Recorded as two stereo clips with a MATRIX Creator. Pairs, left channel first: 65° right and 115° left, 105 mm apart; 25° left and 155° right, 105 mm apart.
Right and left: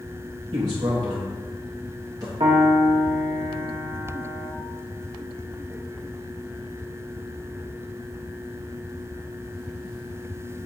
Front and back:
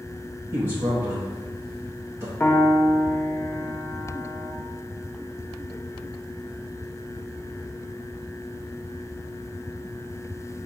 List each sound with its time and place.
0.5 s a man speaking: 145° left, 0.7 m
2.4 s a piano: 90° left, 0.5 m